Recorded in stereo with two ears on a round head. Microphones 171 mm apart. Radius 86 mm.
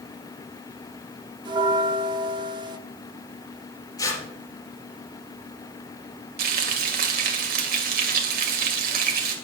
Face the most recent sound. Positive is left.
turn(degrees=-50)  # may be behind; listen again after turning